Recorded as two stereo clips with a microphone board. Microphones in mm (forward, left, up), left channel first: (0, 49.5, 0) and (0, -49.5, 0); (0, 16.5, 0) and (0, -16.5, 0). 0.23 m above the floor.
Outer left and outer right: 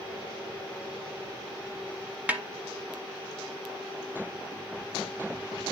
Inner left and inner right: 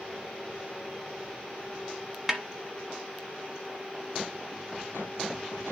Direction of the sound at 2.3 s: 15° right (ahead or behind).